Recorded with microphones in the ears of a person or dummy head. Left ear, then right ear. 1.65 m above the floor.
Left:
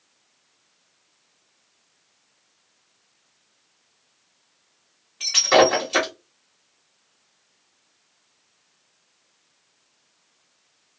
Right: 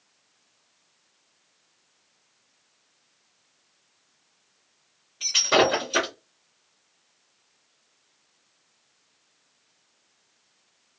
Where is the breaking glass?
15° left (ahead or behind), 1.1 m.